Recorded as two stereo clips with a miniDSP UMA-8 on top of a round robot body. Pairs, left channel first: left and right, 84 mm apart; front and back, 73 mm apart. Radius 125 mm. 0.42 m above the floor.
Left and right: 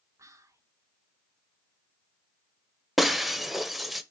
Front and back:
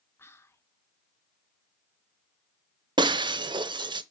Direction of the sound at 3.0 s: Straight behind.